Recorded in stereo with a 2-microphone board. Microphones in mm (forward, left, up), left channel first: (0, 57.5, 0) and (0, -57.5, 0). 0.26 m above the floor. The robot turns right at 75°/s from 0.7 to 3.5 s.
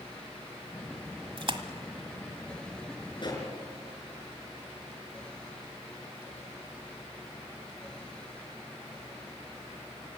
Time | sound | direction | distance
1.4 | a splash | 50° right (ahead or behind) | 1.4 m
3.2 | a pop | 45° left (ahead or behind) | 4.5 m